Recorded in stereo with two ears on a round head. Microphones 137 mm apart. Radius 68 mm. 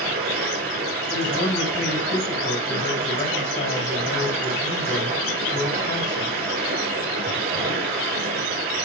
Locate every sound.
0.0 s running water: 65° right (ahead or behind), 1.3 m
1.1 s a man speaking: 60° left (ahead or behind), 3 m